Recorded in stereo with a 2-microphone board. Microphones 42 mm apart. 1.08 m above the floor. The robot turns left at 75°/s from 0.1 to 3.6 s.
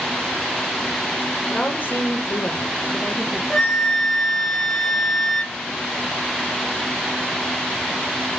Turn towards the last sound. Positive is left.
turn(degrees=10)  # may be behind; listen again after turning